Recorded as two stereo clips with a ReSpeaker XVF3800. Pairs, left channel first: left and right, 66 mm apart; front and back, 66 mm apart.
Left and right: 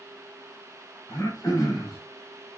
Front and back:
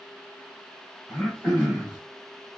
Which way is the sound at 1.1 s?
60° left.